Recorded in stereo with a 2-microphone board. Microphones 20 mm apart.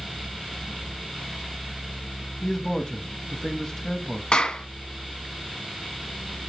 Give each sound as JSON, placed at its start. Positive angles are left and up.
{"t": 2.4, "sound": "a man speaking", "side_deg": 25, "distance_m": 1.0}
{"t": 4.3, "sound": "a clap", "side_deg": 55, "distance_m": 1.6}